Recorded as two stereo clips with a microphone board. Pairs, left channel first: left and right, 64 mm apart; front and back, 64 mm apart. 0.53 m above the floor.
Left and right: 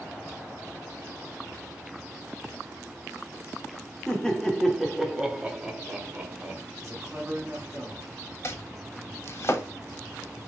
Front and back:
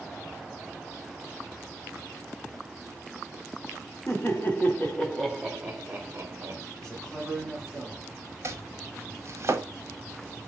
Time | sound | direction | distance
4.1 | laughter | 15° left | 0.9 m
6.8 | a man speaking | 75° right | 1.7 m
8.4 | chopping | 135° left | 0.7 m